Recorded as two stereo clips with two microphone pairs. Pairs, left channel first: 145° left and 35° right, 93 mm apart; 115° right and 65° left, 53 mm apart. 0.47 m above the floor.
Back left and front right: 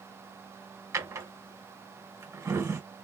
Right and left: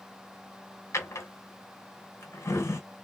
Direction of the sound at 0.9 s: 95° right.